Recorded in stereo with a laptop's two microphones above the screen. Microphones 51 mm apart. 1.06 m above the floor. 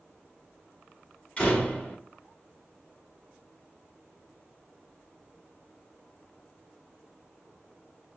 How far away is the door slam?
About 2.5 m.